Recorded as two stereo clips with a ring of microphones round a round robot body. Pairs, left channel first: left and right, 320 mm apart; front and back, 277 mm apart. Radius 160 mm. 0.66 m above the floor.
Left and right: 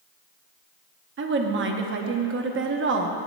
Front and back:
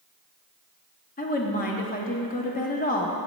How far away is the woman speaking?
About 0.7 m.